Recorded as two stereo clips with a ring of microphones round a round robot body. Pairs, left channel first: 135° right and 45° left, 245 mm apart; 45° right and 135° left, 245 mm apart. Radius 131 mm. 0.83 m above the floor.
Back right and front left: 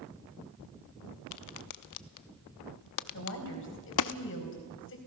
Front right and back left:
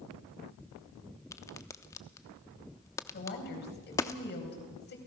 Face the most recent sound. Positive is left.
turn(degrees=-95)